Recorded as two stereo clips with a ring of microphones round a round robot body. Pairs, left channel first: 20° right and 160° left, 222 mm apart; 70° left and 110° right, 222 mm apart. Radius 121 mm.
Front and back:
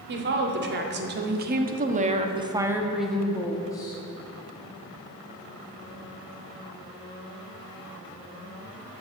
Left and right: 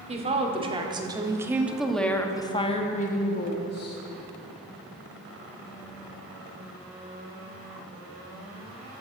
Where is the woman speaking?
170° right, 2 m; by 4.0 s 45° left, 1.6 m.